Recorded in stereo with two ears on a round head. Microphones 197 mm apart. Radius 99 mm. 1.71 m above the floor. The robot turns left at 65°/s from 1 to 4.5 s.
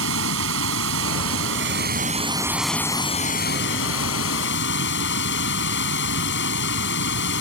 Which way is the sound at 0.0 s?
70° right.